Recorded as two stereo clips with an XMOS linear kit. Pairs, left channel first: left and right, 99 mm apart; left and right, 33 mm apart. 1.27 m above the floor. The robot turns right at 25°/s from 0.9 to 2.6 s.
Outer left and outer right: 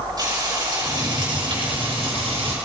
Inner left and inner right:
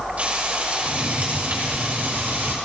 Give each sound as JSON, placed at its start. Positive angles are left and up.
{"t": 0.2, "sound": "frying", "azimuth_deg": -135, "distance_m": 6.5}